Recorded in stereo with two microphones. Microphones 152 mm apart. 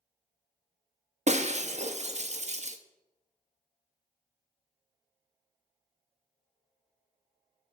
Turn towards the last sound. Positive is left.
turn(degrees=-50)  # may be behind; listen again after turning